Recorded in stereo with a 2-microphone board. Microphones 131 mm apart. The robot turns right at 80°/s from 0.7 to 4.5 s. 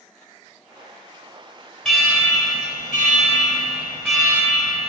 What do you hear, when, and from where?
1.9 s an alarm: straight ahead, 2.5 m; by 4.9 s 150° right, 2.5 m